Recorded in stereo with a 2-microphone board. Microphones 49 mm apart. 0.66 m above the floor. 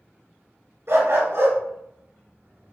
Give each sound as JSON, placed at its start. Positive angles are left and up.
{"t": 0.9, "sound": "a dog barking", "side_deg": -60, "distance_m": 3.0}